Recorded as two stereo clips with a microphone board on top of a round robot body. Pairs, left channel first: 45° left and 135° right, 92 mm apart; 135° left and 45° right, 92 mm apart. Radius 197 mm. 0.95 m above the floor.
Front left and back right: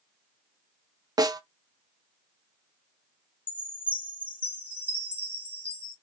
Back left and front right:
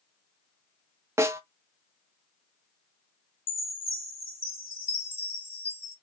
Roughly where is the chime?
Behind left.